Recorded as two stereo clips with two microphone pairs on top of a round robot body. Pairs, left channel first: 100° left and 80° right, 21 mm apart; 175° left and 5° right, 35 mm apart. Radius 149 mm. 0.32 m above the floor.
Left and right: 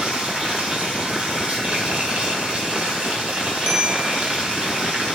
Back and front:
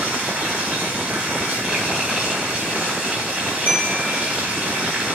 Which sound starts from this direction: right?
Running water, at 0.0 s.